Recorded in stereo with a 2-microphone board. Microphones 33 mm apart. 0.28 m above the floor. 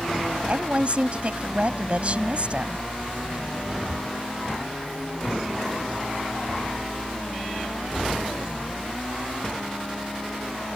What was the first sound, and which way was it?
A woman speaking, 40° right (ahead or behind).